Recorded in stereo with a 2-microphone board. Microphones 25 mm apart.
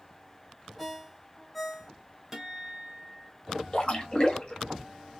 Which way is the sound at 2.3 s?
15° right (ahead or behind).